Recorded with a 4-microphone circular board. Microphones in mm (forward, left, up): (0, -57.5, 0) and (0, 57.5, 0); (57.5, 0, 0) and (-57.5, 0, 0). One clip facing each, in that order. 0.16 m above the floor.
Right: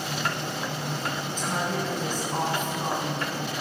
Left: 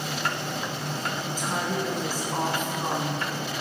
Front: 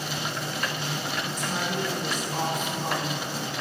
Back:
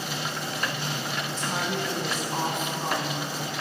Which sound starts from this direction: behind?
A woman speaking, at 1.4 s.